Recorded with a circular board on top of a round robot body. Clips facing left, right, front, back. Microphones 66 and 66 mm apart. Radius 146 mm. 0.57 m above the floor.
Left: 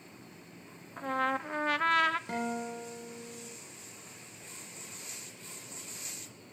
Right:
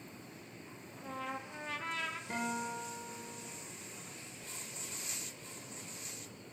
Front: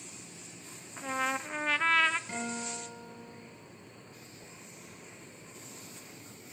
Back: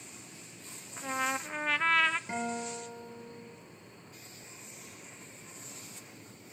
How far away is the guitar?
About 8 m.